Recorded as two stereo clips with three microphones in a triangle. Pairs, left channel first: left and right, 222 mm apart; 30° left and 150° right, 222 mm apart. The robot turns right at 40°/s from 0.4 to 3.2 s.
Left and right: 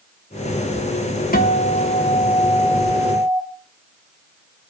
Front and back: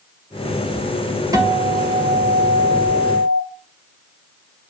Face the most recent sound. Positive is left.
turn(degrees=-150)